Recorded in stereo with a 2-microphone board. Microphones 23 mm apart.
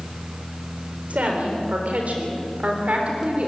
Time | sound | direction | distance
1.1 | a woman speaking | 80° right | 4 m